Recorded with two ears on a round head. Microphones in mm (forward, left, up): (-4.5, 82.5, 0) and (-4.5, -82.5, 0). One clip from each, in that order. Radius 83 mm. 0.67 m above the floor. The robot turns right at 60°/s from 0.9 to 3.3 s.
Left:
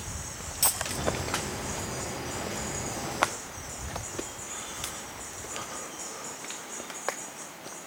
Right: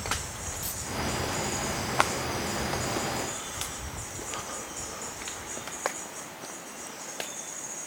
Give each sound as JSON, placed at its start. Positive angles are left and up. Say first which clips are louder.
{"t": 0.6, "sound": "a dropped coin", "louder": "left 6 dB", "side_deg": 70, "distance_m": 1.9}